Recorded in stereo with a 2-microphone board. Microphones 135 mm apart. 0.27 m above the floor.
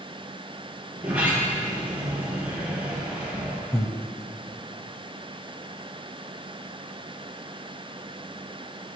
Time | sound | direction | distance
0.9 | a sliding door | 10° right (ahead or behind) | 3.5 m
3.7 | breathing | 25° left (ahead or behind) | 0.7 m